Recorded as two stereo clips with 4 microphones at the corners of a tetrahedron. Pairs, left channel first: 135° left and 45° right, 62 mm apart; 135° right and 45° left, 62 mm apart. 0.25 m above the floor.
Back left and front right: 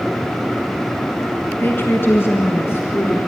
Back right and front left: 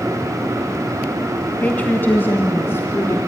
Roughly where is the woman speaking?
Behind.